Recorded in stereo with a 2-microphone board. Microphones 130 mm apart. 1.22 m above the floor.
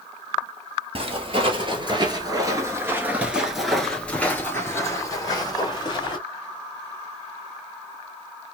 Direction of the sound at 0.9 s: 45° right (ahead or behind).